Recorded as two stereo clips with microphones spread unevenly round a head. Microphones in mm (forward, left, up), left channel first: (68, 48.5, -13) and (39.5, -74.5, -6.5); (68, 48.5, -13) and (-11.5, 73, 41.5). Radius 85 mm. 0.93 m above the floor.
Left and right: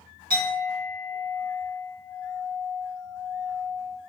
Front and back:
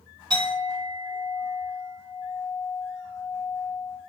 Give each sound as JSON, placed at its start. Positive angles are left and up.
{"t": 0.3, "sound": "a clink", "azimuth_deg": -130, "distance_m": 2.0}